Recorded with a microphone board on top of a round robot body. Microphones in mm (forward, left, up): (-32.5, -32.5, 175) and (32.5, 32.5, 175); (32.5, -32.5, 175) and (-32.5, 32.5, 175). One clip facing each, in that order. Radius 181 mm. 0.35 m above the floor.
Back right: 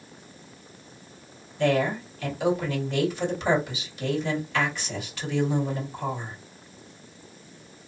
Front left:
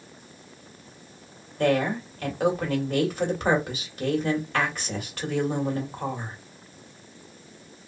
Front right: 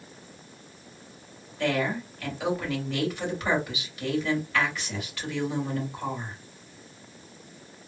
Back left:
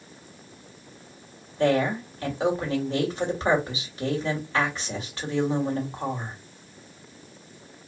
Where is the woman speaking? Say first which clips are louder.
Even, back left 5 dB; 80° left, 2 m.